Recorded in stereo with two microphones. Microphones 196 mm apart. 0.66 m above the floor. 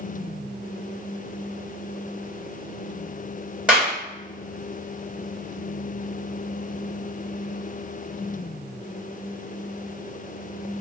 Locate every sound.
3.7 s a clap: 5° right (ahead or behind), 1.7 m